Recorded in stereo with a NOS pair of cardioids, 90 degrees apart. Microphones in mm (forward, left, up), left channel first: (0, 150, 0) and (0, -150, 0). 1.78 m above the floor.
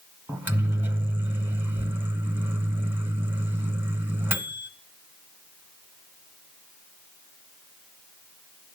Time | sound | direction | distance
0.3 | a microwave | 5° right | 1.1 m